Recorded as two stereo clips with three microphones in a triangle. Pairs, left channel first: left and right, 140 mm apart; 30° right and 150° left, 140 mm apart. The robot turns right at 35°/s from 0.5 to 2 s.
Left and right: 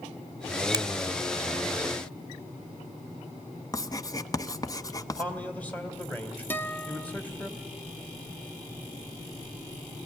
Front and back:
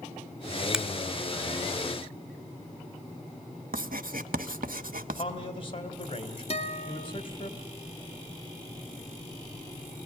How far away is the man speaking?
About 2.5 m.